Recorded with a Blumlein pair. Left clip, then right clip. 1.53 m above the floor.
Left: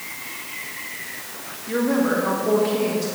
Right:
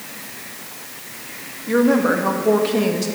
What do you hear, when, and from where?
1.7 s a woman speaking: 20° right, 1.9 m